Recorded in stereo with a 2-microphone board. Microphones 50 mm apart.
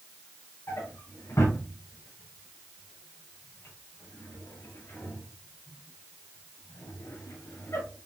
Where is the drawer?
80° left, 6 m.